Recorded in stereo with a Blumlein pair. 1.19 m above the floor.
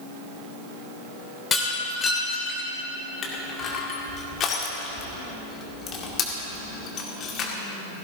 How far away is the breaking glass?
About 3 m.